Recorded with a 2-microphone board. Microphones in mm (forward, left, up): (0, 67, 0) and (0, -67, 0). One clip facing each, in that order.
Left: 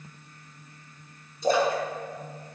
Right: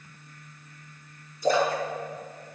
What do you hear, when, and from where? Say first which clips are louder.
1.4 s a splash: even; 25° left (ahead or behind), 5 m